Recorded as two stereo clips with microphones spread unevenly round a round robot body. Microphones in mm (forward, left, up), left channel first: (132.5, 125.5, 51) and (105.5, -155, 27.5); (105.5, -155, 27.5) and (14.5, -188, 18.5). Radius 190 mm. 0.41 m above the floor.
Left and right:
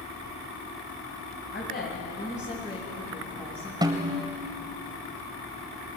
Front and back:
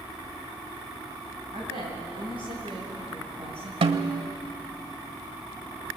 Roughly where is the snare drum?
Behind.